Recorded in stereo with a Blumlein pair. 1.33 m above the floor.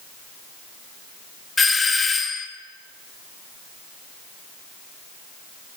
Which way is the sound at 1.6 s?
10° left.